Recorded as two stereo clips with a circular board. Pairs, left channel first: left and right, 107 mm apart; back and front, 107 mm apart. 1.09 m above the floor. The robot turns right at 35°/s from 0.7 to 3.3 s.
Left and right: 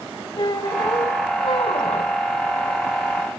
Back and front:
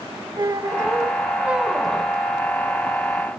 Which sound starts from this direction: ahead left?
A squeak, at 0.4 s.